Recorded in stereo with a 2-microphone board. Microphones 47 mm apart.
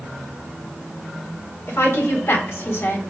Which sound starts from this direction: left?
A woman speaking, at 1.7 s.